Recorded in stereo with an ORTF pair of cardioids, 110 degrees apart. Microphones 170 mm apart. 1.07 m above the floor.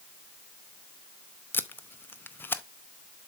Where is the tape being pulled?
15° left, 0.7 m.